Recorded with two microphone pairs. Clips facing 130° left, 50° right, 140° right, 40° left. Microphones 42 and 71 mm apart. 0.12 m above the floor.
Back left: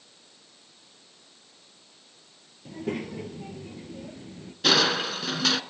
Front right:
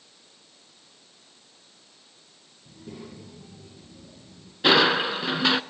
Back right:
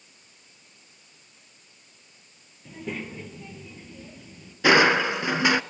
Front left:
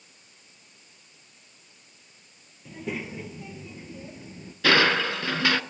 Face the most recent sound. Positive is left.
turn(degrees=-90)